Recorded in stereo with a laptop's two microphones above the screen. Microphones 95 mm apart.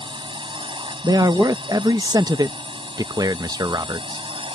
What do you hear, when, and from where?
0.0 s a drone: 65° right (ahead or behind); by 4.6 s 70° right (ahead or behind)
1.0 s a man speaking: 45° right (ahead or behind)